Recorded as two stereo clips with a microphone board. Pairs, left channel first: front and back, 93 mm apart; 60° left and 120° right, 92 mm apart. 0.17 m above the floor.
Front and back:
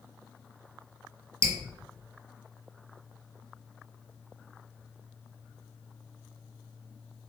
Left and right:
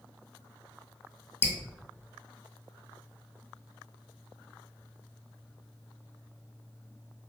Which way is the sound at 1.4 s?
125° left.